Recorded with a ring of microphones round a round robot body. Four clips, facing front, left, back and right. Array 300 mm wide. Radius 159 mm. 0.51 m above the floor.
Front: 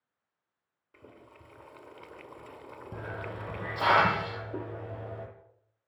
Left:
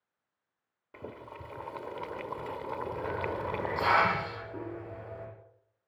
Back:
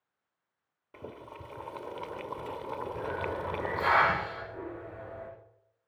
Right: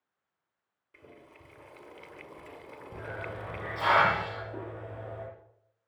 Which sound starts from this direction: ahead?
A hiss, at 2.9 s.